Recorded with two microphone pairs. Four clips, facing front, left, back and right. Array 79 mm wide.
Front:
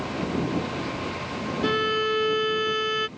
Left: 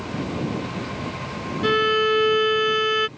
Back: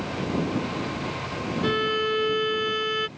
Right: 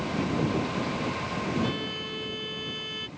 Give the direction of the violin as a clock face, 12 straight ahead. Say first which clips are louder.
Left 13 dB, front 1 dB; 9 o'clock.